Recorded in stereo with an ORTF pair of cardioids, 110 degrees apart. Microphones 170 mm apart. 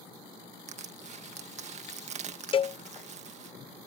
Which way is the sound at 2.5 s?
30° left.